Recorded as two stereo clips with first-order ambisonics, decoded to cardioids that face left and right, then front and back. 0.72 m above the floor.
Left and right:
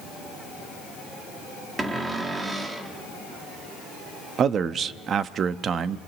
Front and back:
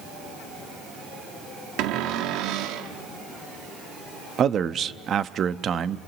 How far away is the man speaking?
About 0.6 m.